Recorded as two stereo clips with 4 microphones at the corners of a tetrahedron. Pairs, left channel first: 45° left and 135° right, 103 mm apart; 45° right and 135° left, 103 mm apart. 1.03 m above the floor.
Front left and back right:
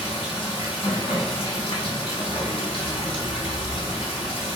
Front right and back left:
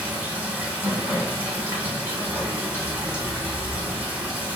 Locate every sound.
0.0 s running water: 65° left, 1.7 m